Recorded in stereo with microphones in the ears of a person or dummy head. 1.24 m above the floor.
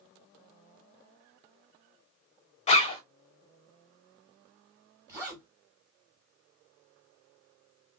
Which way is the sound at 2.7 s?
30° left (ahead or behind).